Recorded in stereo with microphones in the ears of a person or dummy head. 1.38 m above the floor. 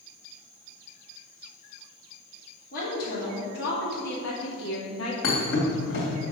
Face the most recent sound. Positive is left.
turn(degrees=70)  # may be behind; listen again after turning